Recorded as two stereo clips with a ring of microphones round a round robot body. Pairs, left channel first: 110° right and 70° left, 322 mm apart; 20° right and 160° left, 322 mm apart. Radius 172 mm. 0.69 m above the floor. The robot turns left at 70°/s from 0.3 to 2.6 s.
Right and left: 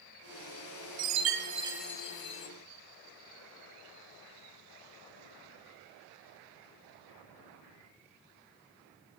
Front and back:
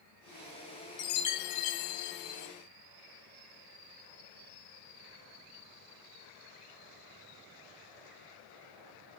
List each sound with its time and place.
1.0 s a chime: 35° left, 0.9 m; by 2.5 s 70° right, 0.9 m